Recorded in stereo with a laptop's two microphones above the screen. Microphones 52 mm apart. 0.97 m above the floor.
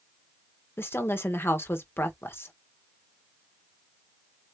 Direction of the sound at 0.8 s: 50° left (ahead or behind).